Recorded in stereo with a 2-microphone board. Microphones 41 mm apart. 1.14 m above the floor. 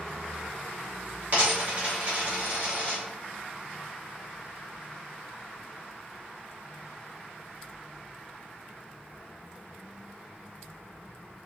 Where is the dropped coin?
40° right (ahead or behind), 1.8 m.